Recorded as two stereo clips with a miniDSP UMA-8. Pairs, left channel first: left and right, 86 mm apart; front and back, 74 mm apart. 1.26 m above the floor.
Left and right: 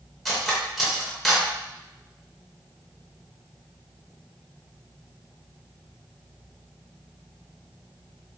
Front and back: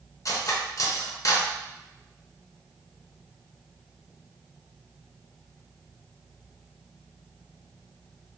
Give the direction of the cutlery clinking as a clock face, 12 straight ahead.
12 o'clock.